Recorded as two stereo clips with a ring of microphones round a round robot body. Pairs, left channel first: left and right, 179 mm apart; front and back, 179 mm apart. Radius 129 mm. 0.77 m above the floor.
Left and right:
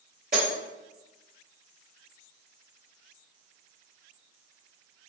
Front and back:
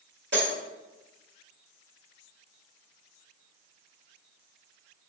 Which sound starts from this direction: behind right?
Breaking glass, at 0.3 s.